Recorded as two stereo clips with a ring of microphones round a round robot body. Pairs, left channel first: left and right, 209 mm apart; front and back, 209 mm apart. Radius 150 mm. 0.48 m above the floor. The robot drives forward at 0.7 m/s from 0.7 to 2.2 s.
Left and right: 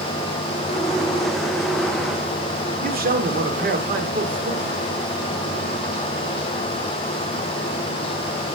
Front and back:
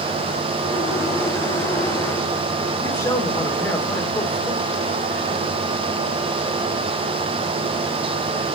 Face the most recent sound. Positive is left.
turn(degrees=-75)